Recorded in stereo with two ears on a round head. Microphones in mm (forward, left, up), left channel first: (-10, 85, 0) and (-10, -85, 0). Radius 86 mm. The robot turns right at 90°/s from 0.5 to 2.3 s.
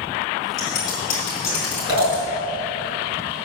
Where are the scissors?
85° left, 5 m; by 2.2 s 55° right (ahead or behind), 5 m.